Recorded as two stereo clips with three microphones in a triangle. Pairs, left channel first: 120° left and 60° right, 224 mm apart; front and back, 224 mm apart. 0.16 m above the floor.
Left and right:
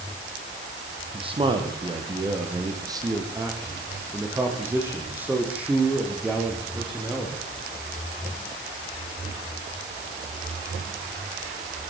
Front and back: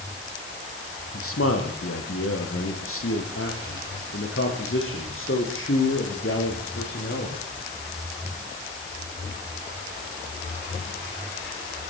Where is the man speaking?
5° left, 6 m; by 7.4 s 30° left, 8.5 m.